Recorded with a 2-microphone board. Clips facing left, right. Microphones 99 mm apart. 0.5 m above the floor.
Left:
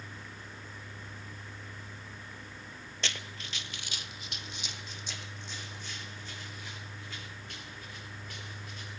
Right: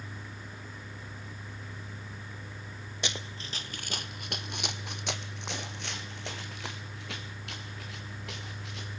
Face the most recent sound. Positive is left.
turn(degrees=-80)